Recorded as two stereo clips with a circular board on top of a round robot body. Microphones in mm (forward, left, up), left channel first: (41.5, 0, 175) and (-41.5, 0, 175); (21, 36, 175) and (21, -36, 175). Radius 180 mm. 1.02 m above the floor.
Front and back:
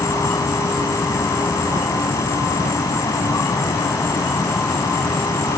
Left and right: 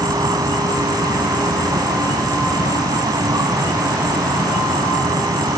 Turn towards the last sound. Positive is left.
turn(degrees=-55)